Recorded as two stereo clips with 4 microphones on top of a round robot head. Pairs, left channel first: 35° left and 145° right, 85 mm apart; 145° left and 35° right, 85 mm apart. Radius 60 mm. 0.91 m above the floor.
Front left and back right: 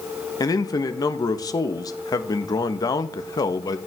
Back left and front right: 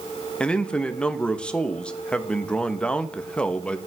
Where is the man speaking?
70° left, 1.0 m.